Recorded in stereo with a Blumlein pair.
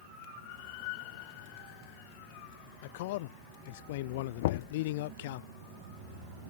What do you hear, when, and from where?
2.8 s a man speaking: 50° left
4.4 s knocking: 55° left